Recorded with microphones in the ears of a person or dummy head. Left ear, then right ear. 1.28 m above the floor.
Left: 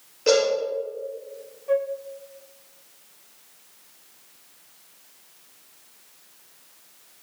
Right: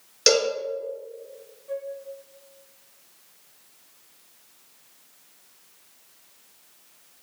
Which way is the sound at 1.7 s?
35° left (ahead or behind).